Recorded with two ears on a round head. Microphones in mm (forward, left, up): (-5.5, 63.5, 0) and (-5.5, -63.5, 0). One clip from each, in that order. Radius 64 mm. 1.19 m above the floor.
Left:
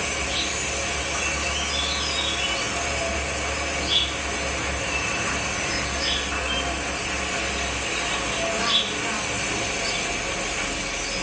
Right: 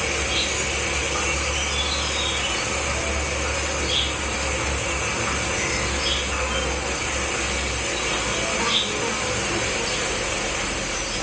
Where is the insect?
75° left (ahead or behind), 3 m.